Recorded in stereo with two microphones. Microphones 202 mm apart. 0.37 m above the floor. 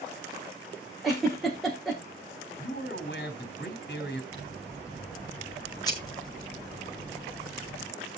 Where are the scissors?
20° left (ahead or behind), 4.5 m.